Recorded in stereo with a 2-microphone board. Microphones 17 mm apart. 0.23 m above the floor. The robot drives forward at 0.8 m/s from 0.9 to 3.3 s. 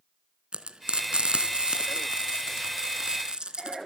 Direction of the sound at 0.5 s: 60° right (ahead or behind).